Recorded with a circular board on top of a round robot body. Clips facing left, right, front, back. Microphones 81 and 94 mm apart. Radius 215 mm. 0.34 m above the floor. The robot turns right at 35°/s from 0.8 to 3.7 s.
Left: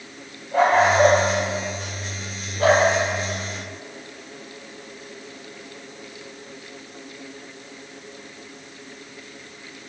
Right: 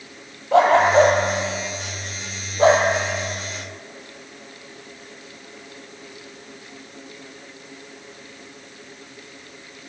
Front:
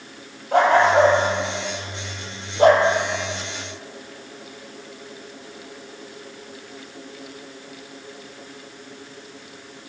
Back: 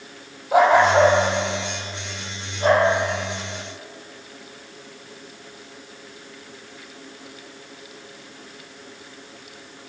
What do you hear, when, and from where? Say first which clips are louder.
0.5 s a dog barking: right 3 dB, back 1 dB; 95° right, 4 m; by 2.9 s 25° right, 4 m